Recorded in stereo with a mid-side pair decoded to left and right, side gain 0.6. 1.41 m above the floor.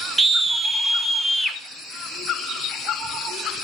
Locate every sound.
0.2 s a scream: 20° right, 1.6 m; by 1.6 s 5° right, 3 m